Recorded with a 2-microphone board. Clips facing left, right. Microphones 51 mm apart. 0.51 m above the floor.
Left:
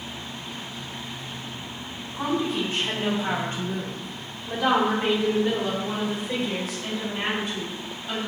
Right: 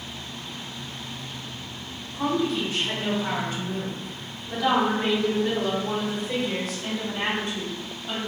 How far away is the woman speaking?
About 1.6 m.